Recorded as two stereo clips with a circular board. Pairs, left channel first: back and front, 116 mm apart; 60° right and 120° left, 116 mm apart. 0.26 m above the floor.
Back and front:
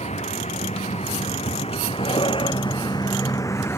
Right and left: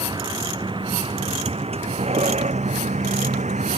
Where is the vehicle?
170° left; by 3.8 s 110° left.